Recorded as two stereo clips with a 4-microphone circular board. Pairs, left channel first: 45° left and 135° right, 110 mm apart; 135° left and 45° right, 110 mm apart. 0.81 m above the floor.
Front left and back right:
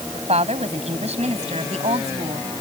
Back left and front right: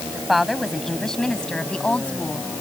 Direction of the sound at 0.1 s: 135° right.